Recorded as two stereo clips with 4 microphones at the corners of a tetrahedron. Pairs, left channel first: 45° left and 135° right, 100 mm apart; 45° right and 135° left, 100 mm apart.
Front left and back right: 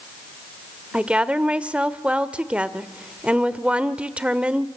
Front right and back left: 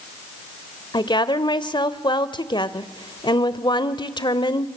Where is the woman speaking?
60° right, 1.2 m.